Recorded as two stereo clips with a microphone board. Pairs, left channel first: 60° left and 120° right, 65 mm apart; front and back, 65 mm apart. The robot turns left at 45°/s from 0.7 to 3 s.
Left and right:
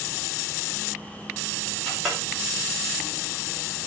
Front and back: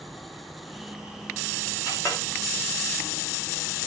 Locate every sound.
1.9 s a clink: 20° right, 3 m; by 2.2 s 35° right, 3 m